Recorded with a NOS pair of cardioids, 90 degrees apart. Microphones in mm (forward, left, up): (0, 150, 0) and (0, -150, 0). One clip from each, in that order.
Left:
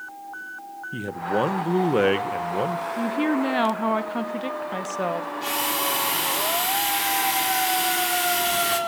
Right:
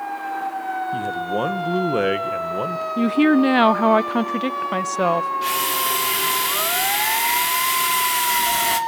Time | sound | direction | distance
0.9 | a man speaking | 5° left | 1.3 m
3.0 | a woman speaking | 35° right | 0.7 m
5.4 | a drill | 25° right | 3.5 m